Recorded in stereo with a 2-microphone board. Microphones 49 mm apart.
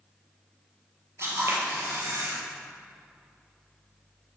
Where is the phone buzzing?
I don't hear a phone buzzing.